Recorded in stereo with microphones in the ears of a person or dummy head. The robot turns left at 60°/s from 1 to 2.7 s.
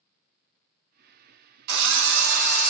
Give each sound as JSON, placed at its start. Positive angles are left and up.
{"t": 1.7, "sound": "a drill", "azimuth_deg": -65, "distance_m": 0.8}